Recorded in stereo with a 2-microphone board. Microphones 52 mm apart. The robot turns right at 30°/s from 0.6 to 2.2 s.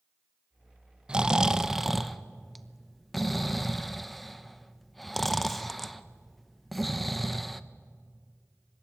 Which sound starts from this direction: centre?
Snoring, at 1.1 s.